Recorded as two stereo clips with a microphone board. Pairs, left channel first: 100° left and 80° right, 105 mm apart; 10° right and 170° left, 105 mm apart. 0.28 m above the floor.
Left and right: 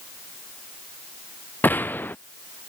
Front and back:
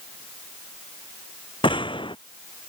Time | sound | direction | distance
1.6 | a gunshot | 30° left | ?